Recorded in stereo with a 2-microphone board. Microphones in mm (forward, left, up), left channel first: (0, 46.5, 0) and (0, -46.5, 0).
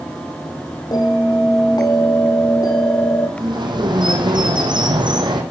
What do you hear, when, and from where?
0.9 s a bell: 45° left (ahead or behind), 2.5 m
3.4 s a bird: 55° right (ahead or behind), 5 m